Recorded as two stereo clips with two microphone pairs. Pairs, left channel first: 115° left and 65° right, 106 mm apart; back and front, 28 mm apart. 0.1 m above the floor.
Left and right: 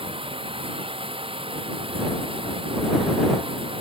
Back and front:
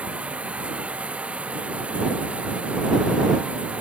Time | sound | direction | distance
0.0 | running water | 35° right | ?